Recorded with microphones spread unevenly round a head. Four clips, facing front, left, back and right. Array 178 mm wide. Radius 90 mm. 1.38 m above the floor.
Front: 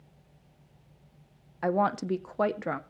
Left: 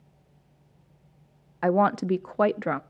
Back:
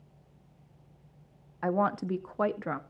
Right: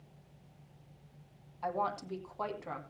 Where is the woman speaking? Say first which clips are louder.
Left 13 dB, front 2 dB; 70° left, 0.6 m.